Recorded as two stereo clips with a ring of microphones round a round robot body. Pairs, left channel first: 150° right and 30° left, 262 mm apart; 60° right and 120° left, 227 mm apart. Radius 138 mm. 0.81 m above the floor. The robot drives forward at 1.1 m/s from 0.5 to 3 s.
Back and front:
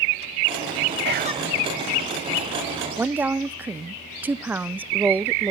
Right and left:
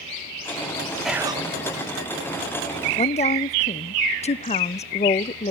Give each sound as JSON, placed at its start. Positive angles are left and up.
{"t": 1.1, "sound": "whispering", "azimuth_deg": 30, "distance_m": 0.6}
{"t": 3.0, "sound": "a woman speaking", "azimuth_deg": -40, "distance_m": 0.5}